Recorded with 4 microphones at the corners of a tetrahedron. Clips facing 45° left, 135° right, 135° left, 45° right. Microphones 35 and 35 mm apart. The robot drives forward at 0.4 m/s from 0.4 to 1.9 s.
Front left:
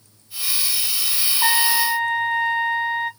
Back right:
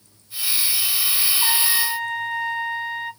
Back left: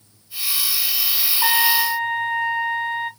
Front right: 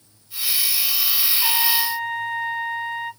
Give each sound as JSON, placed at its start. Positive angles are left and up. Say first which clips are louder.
{"t": 1.4, "sound": "a trumpet", "louder": "front left 7 dB, back left 6 dB", "azimuth_deg": 100, "distance_m": 1.1}